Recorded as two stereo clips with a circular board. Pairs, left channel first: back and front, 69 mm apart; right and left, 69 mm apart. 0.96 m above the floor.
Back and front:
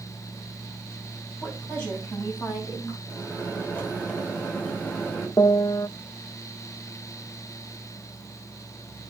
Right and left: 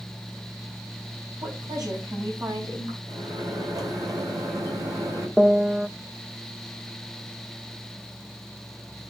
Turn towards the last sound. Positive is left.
turn(degrees=165)